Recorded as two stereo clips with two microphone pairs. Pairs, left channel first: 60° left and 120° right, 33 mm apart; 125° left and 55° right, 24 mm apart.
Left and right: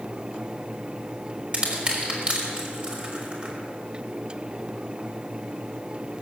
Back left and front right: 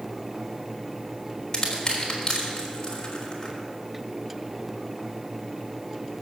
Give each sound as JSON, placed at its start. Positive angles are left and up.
{"t": 1.5, "sound": "crushing", "azimuth_deg": -175, "distance_m": 3.5}